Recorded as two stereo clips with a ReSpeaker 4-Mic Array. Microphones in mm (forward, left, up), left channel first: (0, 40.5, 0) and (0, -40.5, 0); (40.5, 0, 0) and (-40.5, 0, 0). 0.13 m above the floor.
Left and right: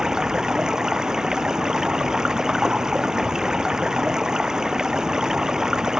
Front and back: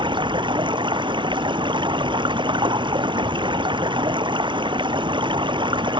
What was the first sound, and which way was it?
Running water, 175° right.